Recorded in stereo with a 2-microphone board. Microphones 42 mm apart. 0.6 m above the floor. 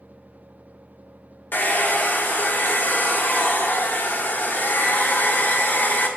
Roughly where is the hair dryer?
Left.